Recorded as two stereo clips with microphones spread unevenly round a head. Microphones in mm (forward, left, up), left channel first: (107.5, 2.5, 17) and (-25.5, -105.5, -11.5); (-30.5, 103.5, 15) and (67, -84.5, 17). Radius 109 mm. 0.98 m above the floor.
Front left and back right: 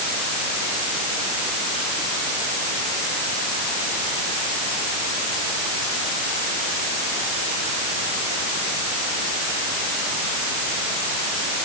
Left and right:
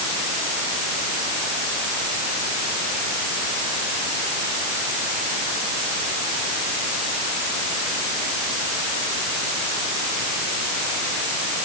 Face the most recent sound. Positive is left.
No sound to turn to.